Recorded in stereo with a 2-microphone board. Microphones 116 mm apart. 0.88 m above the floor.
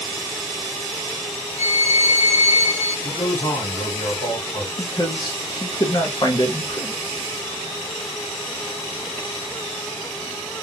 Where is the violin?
75° left (ahead or behind), 1.9 m.